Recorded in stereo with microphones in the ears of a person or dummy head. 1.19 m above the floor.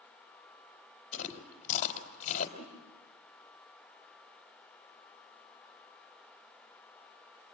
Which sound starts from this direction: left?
Chewing, at 1.1 s.